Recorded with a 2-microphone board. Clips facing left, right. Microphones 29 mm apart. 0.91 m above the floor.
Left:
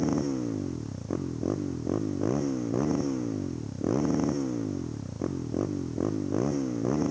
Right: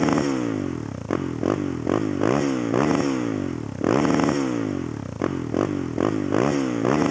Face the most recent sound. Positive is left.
turn(degrees=-90)